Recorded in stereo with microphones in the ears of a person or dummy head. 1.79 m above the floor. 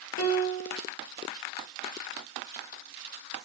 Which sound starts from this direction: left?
A piano, at 0.2 s.